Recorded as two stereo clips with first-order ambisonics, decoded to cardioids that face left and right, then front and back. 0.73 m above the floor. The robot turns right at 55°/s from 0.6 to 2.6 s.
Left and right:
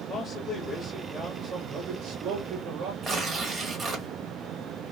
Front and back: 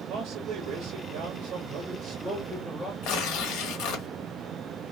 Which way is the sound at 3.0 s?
25° right.